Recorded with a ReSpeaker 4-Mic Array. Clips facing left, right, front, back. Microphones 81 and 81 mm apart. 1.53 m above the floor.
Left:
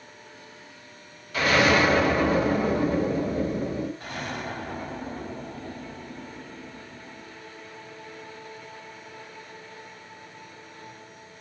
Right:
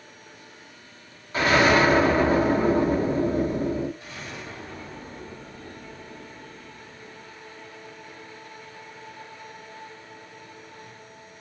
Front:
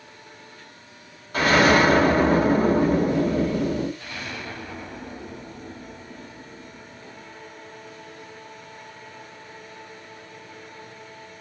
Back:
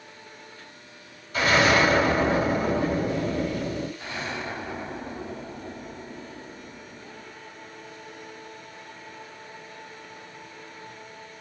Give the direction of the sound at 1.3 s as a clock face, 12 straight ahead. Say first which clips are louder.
Right 2 dB, front 3 dB; 1 o'clock.